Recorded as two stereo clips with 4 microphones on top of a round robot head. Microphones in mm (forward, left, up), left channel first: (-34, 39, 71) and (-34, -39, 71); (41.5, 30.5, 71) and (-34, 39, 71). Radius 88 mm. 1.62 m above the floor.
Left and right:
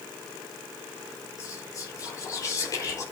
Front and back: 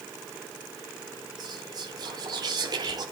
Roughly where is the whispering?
Behind left.